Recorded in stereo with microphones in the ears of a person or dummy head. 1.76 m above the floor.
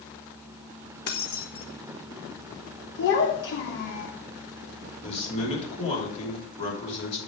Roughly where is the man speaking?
Left.